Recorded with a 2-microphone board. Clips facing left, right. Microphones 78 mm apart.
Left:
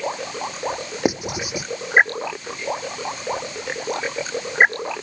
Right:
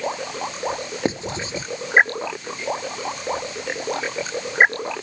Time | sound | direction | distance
1.1 | writing | 15° left (ahead or behind) | ?